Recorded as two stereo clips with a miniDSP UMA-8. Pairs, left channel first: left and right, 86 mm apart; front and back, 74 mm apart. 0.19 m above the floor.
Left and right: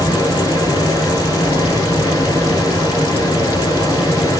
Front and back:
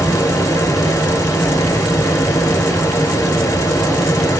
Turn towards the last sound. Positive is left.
turn(degrees=45)